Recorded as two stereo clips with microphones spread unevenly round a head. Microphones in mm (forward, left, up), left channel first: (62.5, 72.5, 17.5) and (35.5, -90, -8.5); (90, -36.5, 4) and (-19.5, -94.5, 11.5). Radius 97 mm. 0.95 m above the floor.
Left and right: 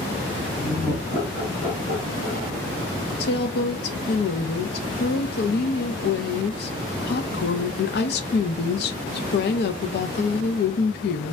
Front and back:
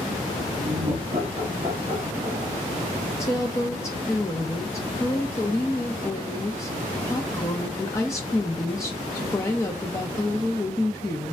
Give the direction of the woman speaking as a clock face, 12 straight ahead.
9 o'clock.